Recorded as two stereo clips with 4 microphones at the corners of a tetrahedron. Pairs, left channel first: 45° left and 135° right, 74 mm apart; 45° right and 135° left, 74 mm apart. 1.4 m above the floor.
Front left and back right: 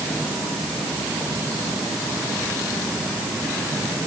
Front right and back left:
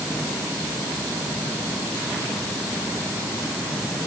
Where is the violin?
No violin in this recording.